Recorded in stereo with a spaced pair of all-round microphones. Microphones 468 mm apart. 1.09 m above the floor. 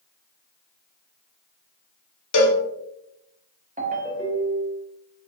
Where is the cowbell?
45° left (ahead or behind), 0.5 m.